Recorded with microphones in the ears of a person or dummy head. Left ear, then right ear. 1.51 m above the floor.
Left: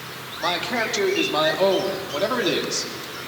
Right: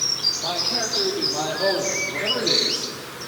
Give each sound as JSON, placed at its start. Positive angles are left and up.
{"t": 0.4, "sound": "a man speaking", "side_deg": 60, "distance_m": 3.0}